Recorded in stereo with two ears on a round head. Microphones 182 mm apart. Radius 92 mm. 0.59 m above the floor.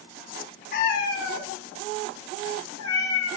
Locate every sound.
0.7 s a cat meowing: 50° left (ahead or behind), 1.9 m; by 3.4 s 80° left, 2 m